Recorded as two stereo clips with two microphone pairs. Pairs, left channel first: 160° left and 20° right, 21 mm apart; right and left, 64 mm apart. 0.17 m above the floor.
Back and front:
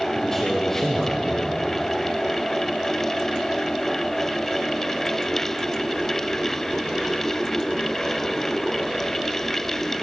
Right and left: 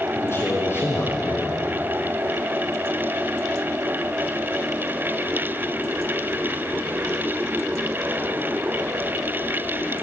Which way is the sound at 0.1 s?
135° right.